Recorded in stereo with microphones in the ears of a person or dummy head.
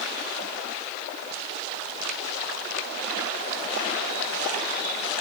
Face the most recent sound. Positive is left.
No sound to turn to.